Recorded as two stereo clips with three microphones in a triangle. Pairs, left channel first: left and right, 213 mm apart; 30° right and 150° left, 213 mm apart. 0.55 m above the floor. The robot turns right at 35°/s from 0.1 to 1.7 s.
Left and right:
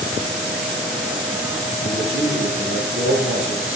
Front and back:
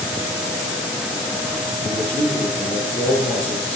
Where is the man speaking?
115° right, 9 m.